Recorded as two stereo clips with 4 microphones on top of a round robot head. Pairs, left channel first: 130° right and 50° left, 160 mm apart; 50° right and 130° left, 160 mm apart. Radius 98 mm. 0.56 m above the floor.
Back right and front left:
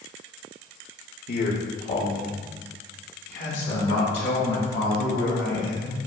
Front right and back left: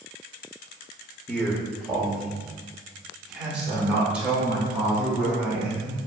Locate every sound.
1.3 s a man speaking: 125° right, 1.6 m; by 6.0 s 145° right, 7.5 m